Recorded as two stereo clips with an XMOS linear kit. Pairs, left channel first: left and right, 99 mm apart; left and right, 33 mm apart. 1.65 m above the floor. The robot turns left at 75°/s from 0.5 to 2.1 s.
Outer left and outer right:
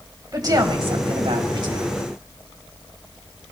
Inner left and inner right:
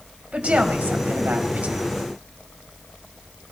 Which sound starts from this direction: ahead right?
A woman speaking, at 0.3 s.